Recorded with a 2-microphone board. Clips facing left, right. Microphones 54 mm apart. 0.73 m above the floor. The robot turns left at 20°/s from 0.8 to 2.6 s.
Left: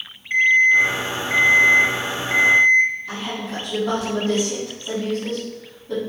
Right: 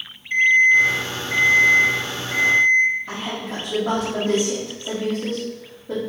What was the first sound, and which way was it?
An alarm clock, 145° left.